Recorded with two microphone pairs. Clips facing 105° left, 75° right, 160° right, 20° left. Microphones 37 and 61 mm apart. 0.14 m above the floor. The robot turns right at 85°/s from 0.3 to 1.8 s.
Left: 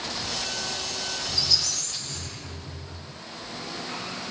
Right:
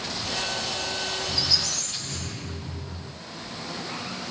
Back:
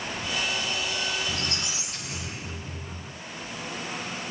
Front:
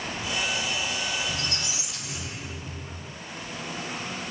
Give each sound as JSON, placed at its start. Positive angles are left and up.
{"t": 1.3, "sound": "a squeak", "azimuth_deg": -160, "distance_m": 4.0}